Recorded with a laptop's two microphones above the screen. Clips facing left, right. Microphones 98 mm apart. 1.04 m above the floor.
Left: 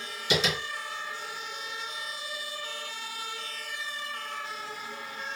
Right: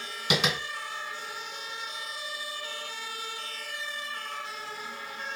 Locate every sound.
0.3 s tapping: 70° right (ahead or behind), 2.5 m